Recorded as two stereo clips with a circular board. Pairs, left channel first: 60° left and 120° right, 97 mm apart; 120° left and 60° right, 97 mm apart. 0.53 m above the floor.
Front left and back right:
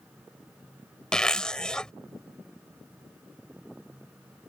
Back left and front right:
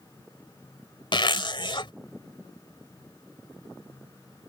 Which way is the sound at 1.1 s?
140° left.